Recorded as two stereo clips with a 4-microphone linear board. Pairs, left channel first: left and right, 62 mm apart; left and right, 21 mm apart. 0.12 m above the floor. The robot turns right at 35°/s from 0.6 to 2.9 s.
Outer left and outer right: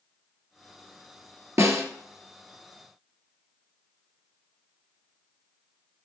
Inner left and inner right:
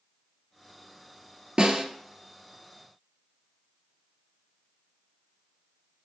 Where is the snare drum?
45° right (ahead or behind), 1.6 m; by 1.9 s 40° right (ahead or behind), 1.6 m.